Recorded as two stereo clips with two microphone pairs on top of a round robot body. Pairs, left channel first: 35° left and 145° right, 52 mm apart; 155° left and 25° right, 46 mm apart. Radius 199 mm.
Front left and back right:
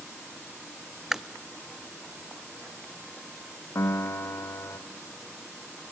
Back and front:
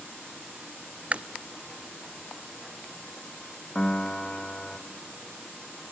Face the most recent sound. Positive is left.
turn(degrees=75)